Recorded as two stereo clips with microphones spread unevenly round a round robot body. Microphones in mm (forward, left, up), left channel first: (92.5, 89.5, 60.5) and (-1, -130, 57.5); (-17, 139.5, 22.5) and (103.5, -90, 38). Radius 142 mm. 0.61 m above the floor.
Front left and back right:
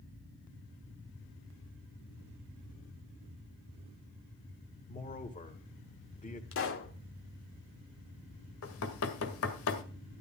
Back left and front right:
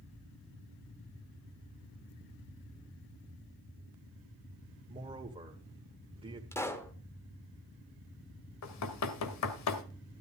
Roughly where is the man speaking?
Ahead.